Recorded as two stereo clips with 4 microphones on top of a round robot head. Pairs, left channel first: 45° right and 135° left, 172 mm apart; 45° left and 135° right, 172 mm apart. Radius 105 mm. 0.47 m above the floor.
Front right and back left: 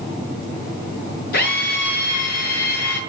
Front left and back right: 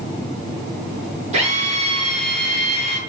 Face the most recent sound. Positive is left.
turn(degrees=-80)